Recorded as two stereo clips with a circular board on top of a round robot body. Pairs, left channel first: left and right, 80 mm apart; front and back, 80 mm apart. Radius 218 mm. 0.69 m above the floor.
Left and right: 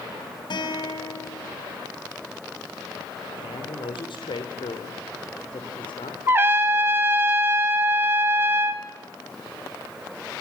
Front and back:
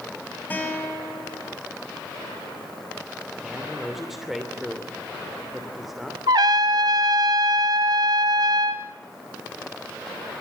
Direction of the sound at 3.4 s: 95° left.